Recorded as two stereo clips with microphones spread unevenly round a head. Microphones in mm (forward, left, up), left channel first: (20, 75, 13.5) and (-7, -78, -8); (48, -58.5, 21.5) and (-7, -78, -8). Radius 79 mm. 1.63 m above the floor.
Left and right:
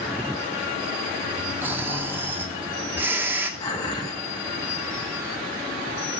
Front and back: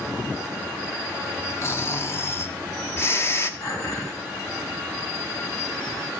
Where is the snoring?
20° right, 0.9 m.